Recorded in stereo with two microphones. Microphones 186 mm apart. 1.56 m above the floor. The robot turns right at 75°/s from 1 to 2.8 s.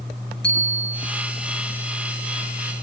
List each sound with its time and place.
0.4 s a bicycle bell: 70° left (ahead or behind), 7 m; by 1.1 s 65° left (ahead or behind), 7 m